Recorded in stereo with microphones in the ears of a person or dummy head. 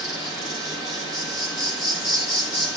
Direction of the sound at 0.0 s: 25° left (ahead or behind).